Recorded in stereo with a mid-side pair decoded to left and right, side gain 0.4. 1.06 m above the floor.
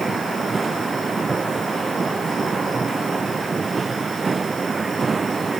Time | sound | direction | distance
0.0 | a machine running | 35° right | ?